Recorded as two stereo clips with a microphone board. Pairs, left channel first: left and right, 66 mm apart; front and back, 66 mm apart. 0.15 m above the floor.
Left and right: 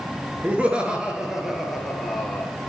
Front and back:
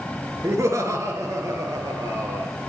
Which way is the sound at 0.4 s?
155° right.